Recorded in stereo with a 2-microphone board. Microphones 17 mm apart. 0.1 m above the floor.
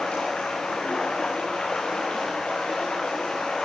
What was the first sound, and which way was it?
Running water, 75° left (ahead or behind).